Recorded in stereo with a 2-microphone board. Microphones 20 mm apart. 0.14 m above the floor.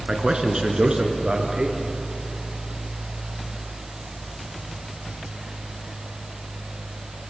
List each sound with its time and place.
0.1 s a man speaking: 35° right (ahead or behind), 2 m; by 1.9 s 50° right (ahead or behind), 3 m